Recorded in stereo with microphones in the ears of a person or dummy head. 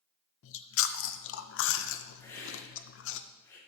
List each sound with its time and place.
0.4 s chewing: 85° left, 0.6 m
2.2 s a hiss: 20° left (ahead or behind), 2.5 m